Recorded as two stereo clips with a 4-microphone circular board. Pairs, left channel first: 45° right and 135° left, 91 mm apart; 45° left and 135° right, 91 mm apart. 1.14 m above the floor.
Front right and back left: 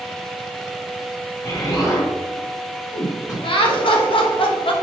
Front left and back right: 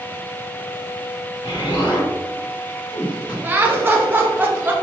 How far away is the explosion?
About 1.3 m.